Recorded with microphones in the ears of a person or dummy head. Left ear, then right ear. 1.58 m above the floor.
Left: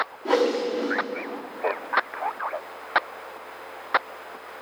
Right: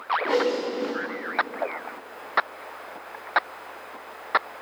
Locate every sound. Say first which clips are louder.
0.2 s a whoosh: left 6 dB; 20° left (ahead or behind), 0.9 m